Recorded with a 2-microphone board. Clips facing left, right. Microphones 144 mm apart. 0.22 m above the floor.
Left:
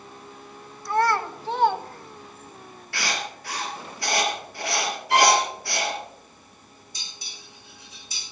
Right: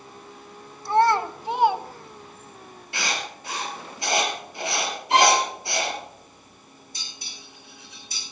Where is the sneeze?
I don't hear a sneeze.